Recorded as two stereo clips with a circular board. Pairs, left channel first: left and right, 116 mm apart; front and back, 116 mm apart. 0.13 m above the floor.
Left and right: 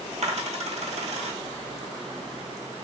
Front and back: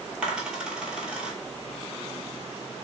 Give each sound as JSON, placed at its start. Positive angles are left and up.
{"t": 0.2, "sound": "a dropped coin", "azimuth_deg": -100, "distance_m": 0.8}